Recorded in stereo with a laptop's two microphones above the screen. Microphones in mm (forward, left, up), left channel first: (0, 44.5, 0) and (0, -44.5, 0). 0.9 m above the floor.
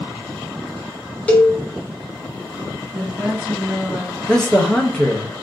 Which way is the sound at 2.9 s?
15° right (ahead or behind).